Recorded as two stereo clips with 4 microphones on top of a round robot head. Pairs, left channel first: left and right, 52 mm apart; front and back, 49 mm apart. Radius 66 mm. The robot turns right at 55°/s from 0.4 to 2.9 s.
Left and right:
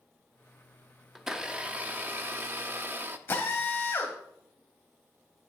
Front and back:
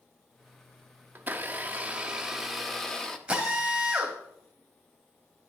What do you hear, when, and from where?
1.1 s a blender: 170° right, 0.7 m; by 3.2 s 75° right, 0.7 m
3.3 s a drill: 110° left, 2.5 m